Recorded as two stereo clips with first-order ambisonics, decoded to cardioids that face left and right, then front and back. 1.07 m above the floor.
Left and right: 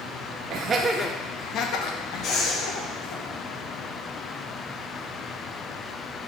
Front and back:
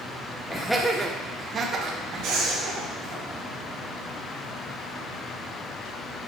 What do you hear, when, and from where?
0.5 s laughter: 80° right, 0.7 m; by 3.2 s 115° left, 2.5 m
2.2 s breathing: 145° left, 1.8 m